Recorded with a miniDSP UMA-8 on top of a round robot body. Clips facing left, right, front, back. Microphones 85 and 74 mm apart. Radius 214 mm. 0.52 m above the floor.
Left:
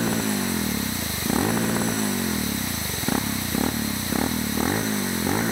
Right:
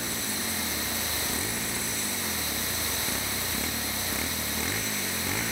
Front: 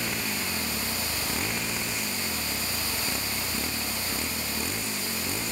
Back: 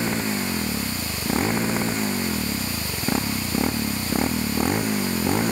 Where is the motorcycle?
120° left; by 5.5 s 145° left.